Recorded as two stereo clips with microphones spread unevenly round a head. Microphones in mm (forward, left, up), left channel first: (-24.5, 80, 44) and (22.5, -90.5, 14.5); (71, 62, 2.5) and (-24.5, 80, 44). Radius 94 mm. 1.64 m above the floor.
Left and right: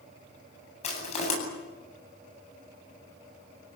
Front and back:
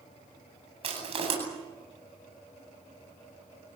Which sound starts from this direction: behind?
Crushing, at 0.8 s.